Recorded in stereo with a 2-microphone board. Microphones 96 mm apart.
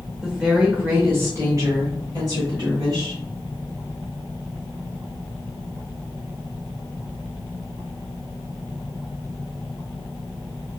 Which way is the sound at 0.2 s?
5° right (ahead or behind).